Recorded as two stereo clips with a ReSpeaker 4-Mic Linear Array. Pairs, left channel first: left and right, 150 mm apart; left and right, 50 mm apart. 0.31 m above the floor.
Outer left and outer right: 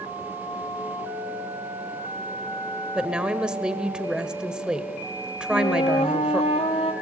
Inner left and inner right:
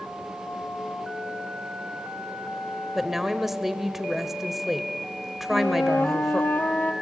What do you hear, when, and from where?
3.0 s a woman speaking: 5° right (ahead or behind), 1.4 m
5.5 s a flute: 45° left (ahead or behind), 1.7 m